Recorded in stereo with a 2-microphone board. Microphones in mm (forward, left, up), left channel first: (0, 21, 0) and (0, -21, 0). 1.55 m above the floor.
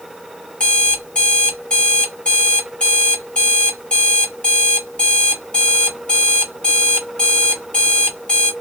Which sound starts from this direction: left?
An alarm clock, at 0.6 s.